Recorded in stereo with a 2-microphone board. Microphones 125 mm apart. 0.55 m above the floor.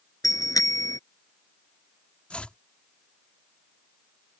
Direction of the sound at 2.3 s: 10° left (ahead or behind).